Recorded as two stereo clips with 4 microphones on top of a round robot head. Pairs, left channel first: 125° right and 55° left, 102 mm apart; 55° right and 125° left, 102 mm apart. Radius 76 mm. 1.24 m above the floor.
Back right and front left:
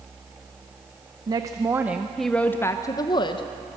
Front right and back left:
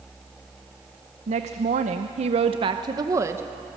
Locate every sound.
1.3 s a woman speaking: 110° left, 0.9 m; by 3.5 s 165° right, 1.0 m